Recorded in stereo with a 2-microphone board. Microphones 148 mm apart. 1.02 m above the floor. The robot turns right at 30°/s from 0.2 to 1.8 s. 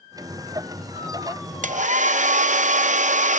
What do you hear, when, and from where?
1.6 s a hair dryer: 65° right (ahead or behind); by 3.4 s 60° right (ahead or behind)